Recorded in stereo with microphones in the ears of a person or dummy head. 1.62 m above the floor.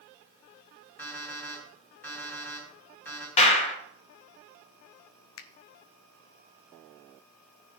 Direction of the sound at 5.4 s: 70° left (ahead or behind).